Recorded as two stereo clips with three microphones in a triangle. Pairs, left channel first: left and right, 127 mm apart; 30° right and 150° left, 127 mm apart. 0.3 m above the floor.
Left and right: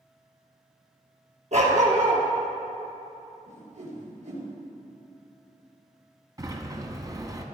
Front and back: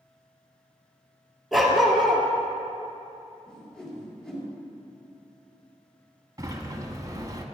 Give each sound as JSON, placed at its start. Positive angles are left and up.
{"t": 1.5, "sound": "a dog barking", "azimuth_deg": -120, "distance_m": 2.5}
{"t": 3.5, "sound": "a whoosh", "azimuth_deg": -115, "distance_m": 4.5}
{"t": 6.4, "sound": "a sliding door", "azimuth_deg": -150, "distance_m": 1.3}